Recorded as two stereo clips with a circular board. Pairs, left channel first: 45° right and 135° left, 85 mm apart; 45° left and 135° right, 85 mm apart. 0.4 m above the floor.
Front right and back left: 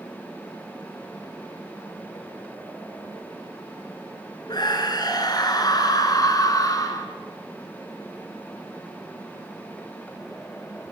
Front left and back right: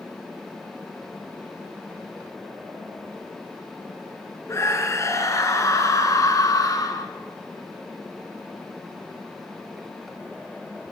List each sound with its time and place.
4.5 s a scream: 10° right, 6 m; by 7.1 s straight ahead, 5 m